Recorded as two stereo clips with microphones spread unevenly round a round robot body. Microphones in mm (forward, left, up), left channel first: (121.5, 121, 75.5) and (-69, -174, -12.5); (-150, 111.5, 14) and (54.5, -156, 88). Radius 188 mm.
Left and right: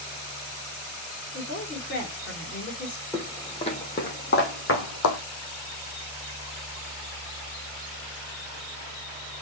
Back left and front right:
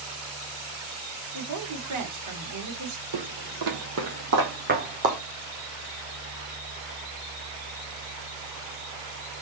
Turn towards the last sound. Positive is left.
turn(degrees=15)